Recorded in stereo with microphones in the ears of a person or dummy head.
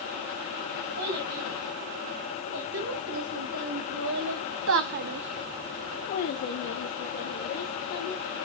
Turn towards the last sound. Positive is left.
turn(degrees=70)  # may be behind; listen again after turning